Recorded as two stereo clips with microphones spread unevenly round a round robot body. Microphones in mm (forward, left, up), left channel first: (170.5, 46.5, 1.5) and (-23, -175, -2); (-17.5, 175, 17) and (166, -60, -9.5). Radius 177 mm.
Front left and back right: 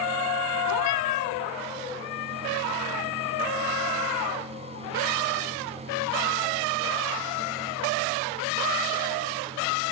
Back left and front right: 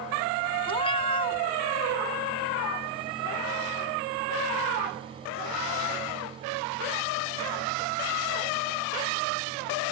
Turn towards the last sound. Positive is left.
turn(degrees=55)